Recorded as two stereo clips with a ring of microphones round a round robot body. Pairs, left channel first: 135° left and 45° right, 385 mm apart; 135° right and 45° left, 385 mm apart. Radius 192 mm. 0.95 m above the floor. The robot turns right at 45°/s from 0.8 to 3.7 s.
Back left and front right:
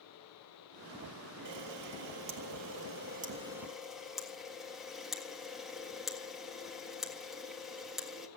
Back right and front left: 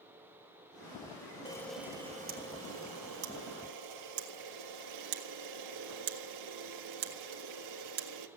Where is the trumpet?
I don't hear a trumpet.